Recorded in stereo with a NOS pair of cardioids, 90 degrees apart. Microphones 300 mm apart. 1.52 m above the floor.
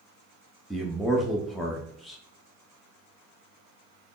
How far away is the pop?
No pop in this recording.